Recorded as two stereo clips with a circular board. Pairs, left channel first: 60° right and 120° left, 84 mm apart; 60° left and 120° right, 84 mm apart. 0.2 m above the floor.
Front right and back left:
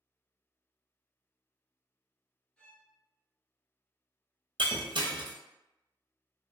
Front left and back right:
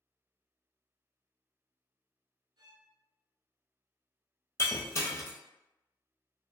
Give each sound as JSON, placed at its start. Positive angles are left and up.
{"t": 2.6, "sound": "a violin", "azimuth_deg": -140, "distance_m": 0.6}
{"t": 4.6, "sound": "breaking glass", "azimuth_deg": 115, "distance_m": 0.7}